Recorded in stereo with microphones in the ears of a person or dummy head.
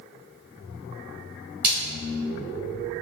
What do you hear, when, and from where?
1.6 s a splash: 45° right (ahead or behind), 1.7 m